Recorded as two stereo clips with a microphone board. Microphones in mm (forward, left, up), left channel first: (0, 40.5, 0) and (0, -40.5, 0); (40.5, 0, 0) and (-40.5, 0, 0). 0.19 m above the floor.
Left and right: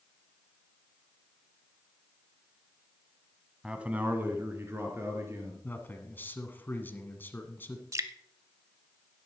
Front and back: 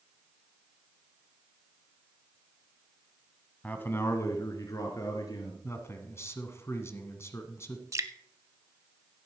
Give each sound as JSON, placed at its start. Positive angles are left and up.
{"t": 3.6, "sound": "a man speaking", "azimuth_deg": -30, "distance_m": 1.0}
{"t": 5.6, "sound": "a man speaking", "azimuth_deg": 35, "distance_m": 1.4}
{"t": 7.9, "sound": "dripping", "azimuth_deg": -135, "distance_m": 0.5}